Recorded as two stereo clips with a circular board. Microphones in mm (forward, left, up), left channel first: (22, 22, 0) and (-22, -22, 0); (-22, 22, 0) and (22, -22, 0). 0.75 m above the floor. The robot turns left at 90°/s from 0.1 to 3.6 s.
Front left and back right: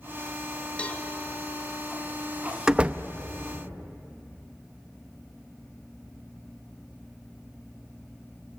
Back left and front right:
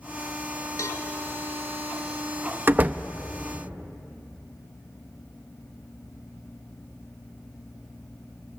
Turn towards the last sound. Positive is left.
turn(degrees=-150)